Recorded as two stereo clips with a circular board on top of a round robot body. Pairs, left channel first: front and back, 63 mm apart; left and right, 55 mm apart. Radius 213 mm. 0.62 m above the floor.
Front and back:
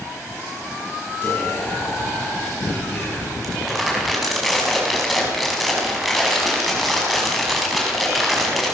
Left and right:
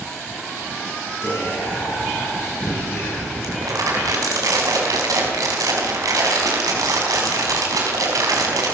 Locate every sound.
1.2 s whispering: 50° left, 8.5 m
3.4 s crumpling: 90° right, 4.5 m